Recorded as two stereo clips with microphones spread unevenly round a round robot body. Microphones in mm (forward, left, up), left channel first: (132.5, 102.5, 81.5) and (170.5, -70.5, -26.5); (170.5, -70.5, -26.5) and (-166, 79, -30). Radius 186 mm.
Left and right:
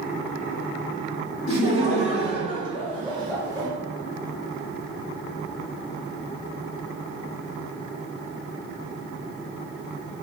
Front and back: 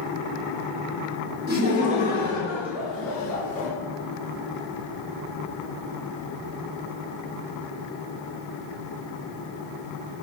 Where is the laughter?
115° left, 1.2 m; by 3.7 s 85° right, 1.2 m.